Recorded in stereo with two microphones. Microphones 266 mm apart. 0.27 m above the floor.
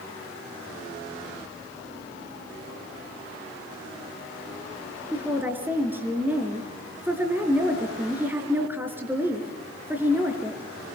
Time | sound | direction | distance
5.1 | a woman speaking | 5° right (ahead or behind) | 4 m